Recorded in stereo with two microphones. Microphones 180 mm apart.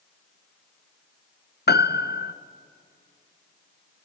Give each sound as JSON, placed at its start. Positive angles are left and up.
{"t": 1.7, "sound": "a piano", "side_deg": 65, "distance_m": 0.7}